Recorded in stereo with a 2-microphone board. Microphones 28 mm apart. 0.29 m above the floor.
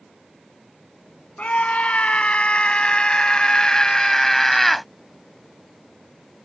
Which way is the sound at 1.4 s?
60° left (ahead or behind).